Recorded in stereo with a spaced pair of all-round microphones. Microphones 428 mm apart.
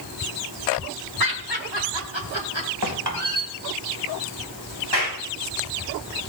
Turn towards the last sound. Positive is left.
turn(degrees=-60)  # may be behind; listen again after turning